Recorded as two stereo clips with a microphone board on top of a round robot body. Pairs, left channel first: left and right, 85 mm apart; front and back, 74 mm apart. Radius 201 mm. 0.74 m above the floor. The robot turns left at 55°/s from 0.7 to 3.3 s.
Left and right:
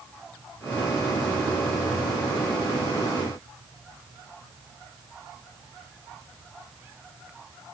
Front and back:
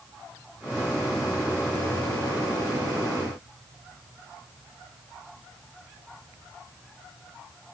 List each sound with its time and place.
Only background noise.